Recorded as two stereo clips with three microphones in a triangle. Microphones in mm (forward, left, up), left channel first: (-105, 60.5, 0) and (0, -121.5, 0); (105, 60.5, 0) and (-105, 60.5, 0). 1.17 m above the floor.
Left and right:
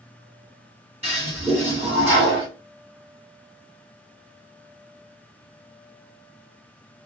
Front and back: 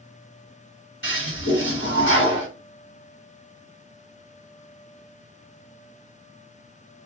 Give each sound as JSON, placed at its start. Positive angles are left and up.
{"t": 1.0, "sound": "a toilet flushing", "azimuth_deg": -5, "distance_m": 2.0}